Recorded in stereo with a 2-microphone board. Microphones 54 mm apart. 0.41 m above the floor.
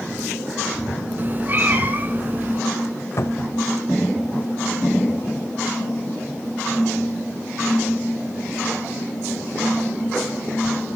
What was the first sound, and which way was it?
A cat meowing, 35° right (ahead or behind).